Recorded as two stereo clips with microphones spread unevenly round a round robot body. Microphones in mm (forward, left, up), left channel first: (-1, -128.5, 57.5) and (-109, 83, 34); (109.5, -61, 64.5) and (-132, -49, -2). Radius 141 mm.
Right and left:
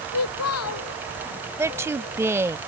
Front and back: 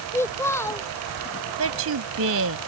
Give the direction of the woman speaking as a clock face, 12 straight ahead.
5 o'clock.